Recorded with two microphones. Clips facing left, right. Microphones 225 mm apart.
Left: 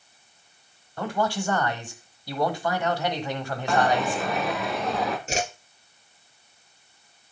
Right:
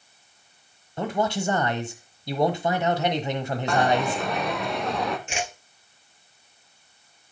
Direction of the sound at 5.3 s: 40° left (ahead or behind).